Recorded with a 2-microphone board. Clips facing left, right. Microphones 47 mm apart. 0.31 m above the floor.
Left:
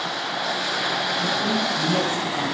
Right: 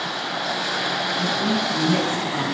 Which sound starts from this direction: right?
A woman speaking, at 1.2 s.